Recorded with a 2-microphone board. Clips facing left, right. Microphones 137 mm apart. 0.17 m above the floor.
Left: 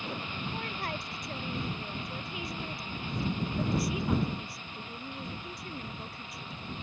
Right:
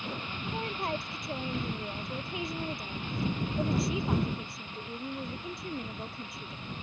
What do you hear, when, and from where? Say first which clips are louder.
0.5 s a woman speaking: right 6 dB; 25° right (ahead or behind)